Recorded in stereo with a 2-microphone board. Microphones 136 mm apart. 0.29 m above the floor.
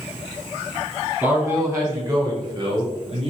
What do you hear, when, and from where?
1.2 s a man speaking: 20° right (ahead or behind), 3 m; by 3.3 s 45° right (ahead or behind), 1.7 m